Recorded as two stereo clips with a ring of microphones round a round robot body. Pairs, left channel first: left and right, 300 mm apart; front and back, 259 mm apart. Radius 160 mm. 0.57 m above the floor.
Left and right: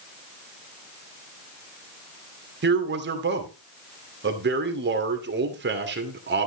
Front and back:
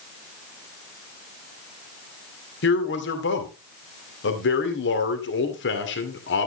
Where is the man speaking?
40° right, 2.5 m.